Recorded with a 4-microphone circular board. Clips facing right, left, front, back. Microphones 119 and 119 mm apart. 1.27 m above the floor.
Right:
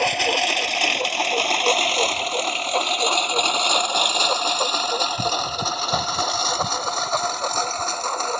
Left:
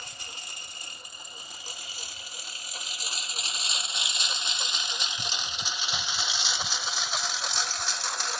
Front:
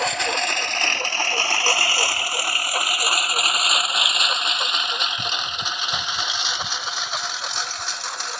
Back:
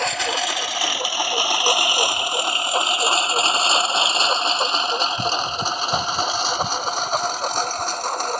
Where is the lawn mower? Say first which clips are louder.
Right 26 dB, even; 90° right; by 8.4 s 135° right.